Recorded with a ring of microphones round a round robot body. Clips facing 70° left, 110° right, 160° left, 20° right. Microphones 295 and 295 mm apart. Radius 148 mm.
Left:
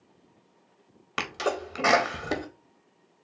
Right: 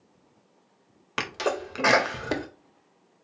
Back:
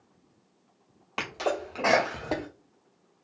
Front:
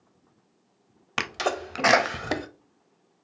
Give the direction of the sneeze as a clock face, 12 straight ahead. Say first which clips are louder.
Right 1 dB, even; 1 o'clock.